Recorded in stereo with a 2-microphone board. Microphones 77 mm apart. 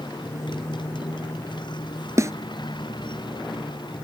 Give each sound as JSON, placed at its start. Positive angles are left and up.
{"t": 0.0, "sound": "a motorcycle", "side_deg": 80}
{"t": 2.2, "sound": "a snare drum", "side_deg": -45}